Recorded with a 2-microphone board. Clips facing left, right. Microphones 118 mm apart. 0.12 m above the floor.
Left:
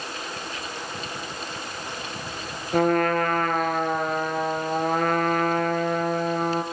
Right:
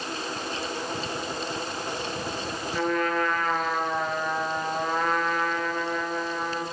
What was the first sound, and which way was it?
A trumpet, 50° left (ahead or behind).